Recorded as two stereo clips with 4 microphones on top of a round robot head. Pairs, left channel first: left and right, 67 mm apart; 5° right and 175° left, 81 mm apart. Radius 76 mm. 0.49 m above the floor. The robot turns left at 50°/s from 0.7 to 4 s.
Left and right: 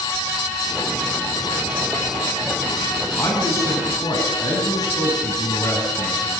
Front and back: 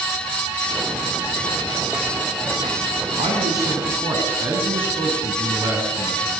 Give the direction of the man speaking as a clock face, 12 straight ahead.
7 o'clock.